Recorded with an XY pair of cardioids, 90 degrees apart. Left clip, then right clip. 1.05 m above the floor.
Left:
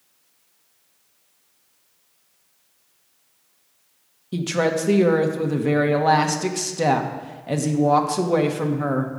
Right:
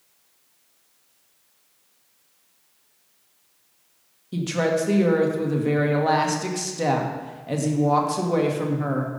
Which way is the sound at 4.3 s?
30° left.